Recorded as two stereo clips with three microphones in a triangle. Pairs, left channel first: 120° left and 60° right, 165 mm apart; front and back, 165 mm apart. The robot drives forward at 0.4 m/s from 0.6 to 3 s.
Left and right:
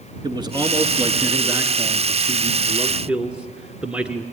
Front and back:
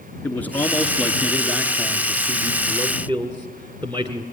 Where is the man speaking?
65° right, 1.4 m; by 4.2 s 140° right, 1.6 m.